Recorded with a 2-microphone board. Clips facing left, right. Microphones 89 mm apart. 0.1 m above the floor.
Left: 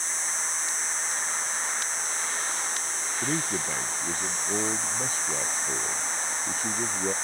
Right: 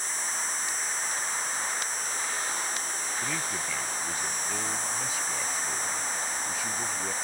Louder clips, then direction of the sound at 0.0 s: Even; 55° right (ahead or behind).